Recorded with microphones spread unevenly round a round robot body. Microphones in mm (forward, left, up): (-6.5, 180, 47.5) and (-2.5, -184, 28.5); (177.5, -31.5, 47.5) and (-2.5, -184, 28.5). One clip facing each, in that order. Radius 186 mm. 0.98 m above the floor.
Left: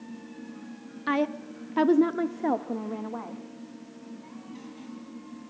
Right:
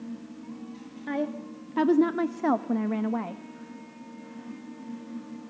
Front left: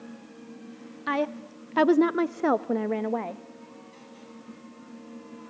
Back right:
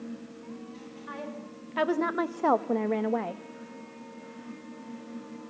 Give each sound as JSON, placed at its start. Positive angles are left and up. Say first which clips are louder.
{"t": 1.1, "sound": "a woman speaking", "louder": "left 3 dB, front left 12 dB", "azimuth_deg": 35, "distance_m": 1.2}